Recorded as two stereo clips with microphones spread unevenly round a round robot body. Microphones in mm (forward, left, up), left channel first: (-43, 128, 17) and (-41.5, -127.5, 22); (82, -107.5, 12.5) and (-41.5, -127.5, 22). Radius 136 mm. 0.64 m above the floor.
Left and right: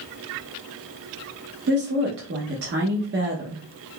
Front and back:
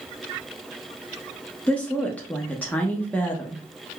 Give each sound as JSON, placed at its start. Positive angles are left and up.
{"t": 1.7, "sound": "a woman speaking", "azimuth_deg": -60, "distance_m": 0.7}